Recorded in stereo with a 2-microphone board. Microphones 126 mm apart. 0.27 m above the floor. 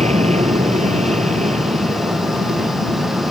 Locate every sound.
0.0 s an aircraft: 65° right (ahead or behind); by 3.3 s 70° right (ahead or behind)